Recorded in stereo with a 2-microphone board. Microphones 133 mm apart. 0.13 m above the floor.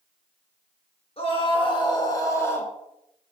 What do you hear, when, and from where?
1.2 s a scream: 45° left (ahead or behind), 2.5 m; by 2.7 s 15° left (ahead or behind), 1.9 m